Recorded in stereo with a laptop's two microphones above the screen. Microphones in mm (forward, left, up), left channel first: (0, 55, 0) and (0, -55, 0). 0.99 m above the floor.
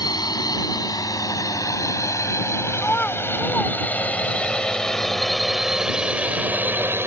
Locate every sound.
0.0 s a drone: 35° left (ahead or behind); by 7.1 s 25° right (ahead or behind)
2.8 s a child speaking: 15° left (ahead or behind)